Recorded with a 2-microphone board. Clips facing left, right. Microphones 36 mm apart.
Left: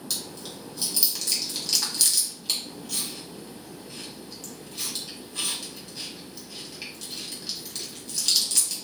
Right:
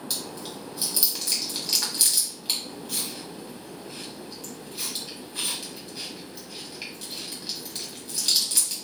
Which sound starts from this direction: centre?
Chewing, at 0.1 s.